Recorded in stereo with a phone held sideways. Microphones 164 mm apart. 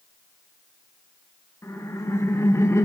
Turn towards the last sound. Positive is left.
turn(degrees=15)  # may be behind; listen again after turning